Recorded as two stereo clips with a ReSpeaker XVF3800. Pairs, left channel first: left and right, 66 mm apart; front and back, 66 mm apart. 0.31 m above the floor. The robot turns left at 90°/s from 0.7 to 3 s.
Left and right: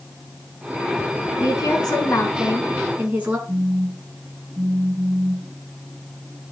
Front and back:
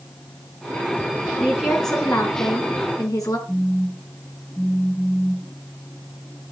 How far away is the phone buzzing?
About 1.4 m.